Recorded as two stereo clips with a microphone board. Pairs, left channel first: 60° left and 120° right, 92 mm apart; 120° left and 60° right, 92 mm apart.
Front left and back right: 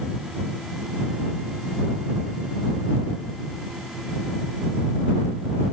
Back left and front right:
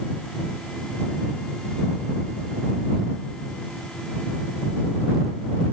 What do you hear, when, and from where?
Only background noise.